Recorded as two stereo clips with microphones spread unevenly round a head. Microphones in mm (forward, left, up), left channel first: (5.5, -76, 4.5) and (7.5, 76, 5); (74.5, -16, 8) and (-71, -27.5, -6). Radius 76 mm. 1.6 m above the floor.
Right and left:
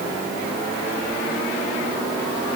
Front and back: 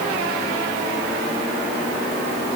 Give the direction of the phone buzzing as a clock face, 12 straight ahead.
I don't hear a phone buzzing.